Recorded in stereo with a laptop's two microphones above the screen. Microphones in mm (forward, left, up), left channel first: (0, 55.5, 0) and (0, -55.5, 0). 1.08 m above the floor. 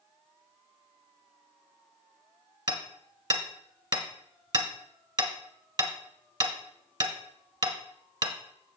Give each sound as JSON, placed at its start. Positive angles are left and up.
{"t": 2.7, "sound": "hammering", "side_deg": -45, "distance_m": 1.3}